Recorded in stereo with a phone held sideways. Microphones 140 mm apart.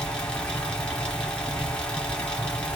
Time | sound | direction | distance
0.0 | a fan | 5° left (ahead or behind) | 1.3 m